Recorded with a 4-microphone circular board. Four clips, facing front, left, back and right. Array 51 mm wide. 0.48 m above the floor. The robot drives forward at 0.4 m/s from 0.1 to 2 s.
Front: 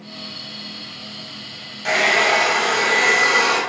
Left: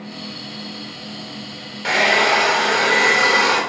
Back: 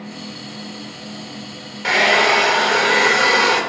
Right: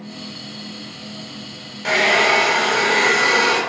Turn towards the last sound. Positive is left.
turn(degrees=165)